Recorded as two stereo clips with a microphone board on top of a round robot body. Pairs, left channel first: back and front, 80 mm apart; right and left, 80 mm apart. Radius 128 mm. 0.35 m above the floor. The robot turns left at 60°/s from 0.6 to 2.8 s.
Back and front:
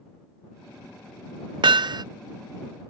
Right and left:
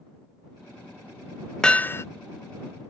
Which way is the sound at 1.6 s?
10° right.